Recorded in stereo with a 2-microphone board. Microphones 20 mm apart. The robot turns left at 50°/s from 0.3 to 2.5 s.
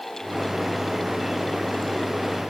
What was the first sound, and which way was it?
Only background noise.